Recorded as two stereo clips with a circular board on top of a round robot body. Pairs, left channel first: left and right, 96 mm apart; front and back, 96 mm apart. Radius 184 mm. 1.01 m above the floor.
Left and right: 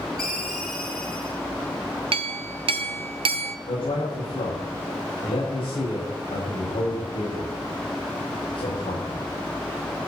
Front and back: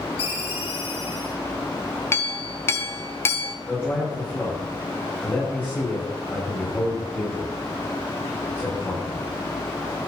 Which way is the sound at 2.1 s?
65° right.